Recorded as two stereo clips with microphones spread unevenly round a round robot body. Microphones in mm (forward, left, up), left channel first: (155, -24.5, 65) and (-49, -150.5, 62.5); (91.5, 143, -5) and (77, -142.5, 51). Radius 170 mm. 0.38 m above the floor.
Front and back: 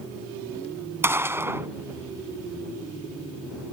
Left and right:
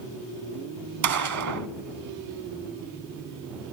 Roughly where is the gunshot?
Ahead right.